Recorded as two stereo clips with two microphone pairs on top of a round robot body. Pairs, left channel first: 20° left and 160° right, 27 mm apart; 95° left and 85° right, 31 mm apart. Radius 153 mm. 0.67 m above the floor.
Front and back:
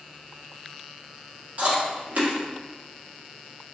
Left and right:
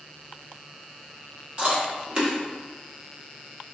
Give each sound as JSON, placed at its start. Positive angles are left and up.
{"t": 1.6, "sound": "chewing", "azimuth_deg": -140, "distance_m": 1.7}